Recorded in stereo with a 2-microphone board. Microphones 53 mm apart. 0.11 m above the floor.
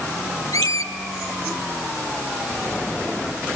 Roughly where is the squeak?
Left.